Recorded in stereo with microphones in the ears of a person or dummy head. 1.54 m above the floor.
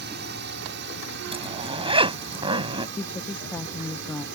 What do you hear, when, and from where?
0.0 s a drone: 55° right (ahead or behind)
1.3 s a zipper: 25° right (ahead or behind)
3.0 s a woman speaking: 10° left (ahead or behind)